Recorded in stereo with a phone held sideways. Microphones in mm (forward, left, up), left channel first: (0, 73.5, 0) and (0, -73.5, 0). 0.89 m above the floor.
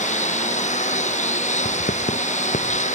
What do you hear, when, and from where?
0.0 s a lawn mower: 55° left (ahead or behind)
1.6 s writing: 65° left (ahead or behind)